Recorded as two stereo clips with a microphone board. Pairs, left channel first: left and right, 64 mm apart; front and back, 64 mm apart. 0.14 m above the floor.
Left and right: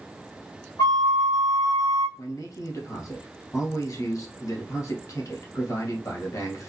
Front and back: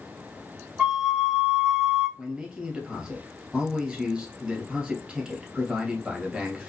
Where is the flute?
105° left, 1.6 m.